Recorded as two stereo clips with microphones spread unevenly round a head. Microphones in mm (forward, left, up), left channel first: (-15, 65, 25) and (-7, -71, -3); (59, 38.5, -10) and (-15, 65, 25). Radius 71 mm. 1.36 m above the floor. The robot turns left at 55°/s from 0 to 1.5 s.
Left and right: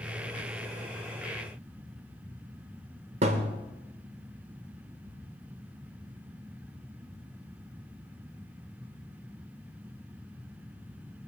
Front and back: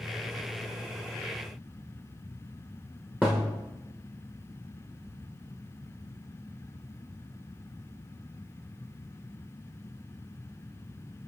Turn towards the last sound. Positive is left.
turn(degrees=-160)